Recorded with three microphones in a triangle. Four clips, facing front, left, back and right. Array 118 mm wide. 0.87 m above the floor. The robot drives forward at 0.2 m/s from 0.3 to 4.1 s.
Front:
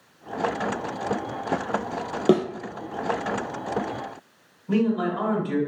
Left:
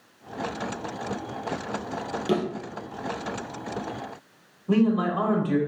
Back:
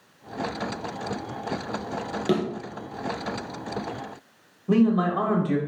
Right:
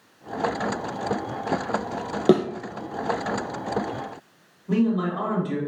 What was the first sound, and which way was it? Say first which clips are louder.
A thud: right 7 dB, front 5 dB; 55° right.